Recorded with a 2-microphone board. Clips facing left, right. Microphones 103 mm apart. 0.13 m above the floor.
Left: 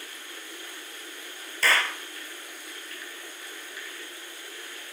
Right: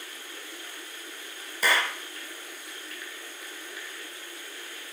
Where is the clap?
15° right (ahead or behind), 2 m.